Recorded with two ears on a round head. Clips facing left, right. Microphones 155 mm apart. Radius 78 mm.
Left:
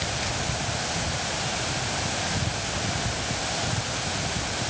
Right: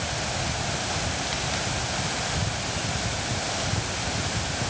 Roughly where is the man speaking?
I don't hear a man speaking.